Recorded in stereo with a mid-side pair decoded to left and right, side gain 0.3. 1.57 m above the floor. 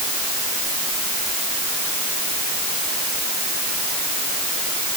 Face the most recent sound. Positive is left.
No sound to turn to.